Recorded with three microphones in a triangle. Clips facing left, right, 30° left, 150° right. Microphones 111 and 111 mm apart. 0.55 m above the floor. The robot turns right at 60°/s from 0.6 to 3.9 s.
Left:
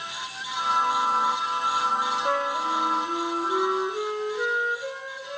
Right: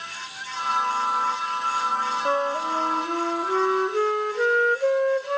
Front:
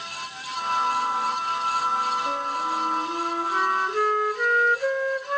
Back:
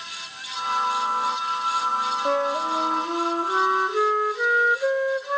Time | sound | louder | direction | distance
2.2 | a flute | right 4 dB, back 4 dB | 165° right | 1.3 m